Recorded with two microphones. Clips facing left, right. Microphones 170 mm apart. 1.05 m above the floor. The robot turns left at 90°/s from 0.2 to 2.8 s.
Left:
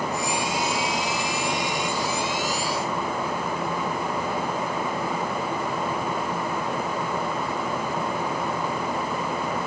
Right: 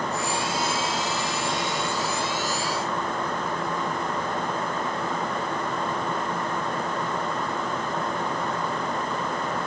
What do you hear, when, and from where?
Only background noise.